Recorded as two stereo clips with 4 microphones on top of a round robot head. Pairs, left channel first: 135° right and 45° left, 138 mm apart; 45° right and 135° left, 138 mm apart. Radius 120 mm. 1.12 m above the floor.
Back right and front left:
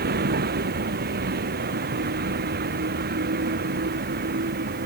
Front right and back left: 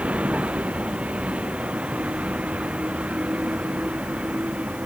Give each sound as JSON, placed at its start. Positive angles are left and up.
{"t": 0.0, "sound": "a vehicle", "azimuth_deg": 50}